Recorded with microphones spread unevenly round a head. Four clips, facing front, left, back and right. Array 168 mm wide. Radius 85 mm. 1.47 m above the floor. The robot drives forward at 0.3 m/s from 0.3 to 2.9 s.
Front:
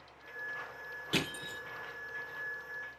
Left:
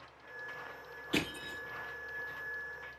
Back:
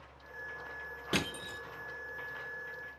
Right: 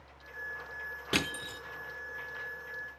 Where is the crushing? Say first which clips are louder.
Right 1 dB, back 1 dB; 110° right, 3 m; by 1.6 s 115° right, 3 m.